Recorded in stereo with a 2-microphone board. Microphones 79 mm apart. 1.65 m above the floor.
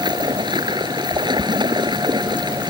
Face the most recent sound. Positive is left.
turn(degrees=-75)  # may be behind; listen again after turning